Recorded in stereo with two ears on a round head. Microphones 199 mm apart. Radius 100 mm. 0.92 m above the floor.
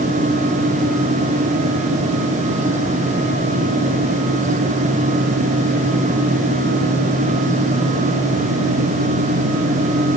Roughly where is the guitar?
No guitar in this recording.